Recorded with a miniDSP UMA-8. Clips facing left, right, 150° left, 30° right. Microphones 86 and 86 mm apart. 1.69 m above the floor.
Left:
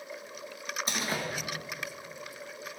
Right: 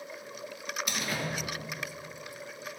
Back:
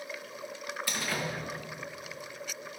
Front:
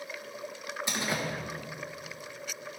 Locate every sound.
0.9 s a door slam: 35° left, 1.4 m